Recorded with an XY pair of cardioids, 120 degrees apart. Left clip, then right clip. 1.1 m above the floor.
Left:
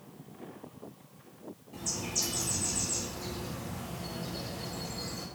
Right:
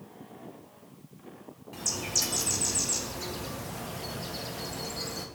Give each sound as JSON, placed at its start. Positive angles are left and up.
{"t": 1.7, "sound": "a bird", "azimuth_deg": -65, "distance_m": 1.3}